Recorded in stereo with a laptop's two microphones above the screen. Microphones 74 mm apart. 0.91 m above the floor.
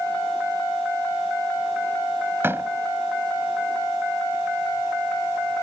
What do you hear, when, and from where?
2.4 s a door slam: 30° right (ahead or behind)